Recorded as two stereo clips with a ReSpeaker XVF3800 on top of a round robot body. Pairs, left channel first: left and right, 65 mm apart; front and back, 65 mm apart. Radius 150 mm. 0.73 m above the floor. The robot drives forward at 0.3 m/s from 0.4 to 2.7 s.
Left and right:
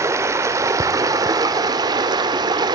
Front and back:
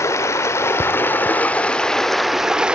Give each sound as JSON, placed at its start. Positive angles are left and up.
{"t": 0.0, "sound": "running water", "azimuth_deg": -45, "distance_m": 0.8}